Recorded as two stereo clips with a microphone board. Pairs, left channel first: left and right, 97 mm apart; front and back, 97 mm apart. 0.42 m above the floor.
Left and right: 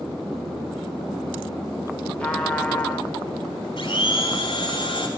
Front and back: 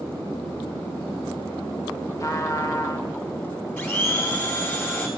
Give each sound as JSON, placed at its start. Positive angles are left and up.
{"t": 2.2, "sound": "a trumpet", "azimuth_deg": 20, "distance_m": 1.6}
{"t": 3.8, "sound": "a blender", "azimuth_deg": 65, "distance_m": 2.5}